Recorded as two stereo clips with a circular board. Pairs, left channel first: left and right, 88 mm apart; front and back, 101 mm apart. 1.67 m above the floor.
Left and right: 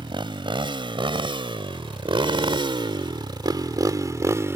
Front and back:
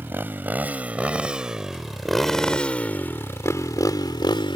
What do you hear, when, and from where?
0.0 s a motorcycle: 110° right; by 4.6 s 30° right